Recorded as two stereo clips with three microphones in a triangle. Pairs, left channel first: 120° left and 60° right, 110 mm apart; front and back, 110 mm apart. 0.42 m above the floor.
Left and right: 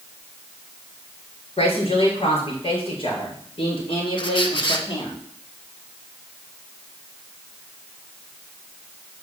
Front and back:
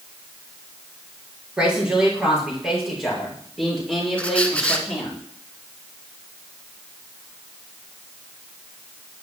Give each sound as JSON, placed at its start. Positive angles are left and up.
{"t": 1.6, "sound": "a woman speaking", "azimuth_deg": 100, "distance_m": 7.5}
{"t": 4.2, "sound": "a squeak", "azimuth_deg": 80, "distance_m": 1.5}